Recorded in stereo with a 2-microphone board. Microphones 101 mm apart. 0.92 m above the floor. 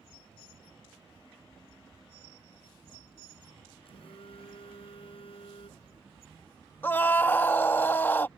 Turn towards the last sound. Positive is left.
turn(degrees=20)  # may be behind; listen again after turning